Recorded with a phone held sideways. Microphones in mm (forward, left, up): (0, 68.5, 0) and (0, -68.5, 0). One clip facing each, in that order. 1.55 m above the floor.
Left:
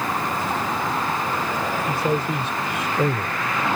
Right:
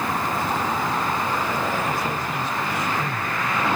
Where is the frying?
No frying in this recording.